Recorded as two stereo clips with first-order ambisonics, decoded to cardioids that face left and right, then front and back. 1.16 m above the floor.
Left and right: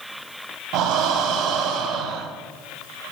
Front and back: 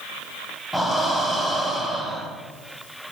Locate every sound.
0.7 s breathing: 90° right, 0.9 m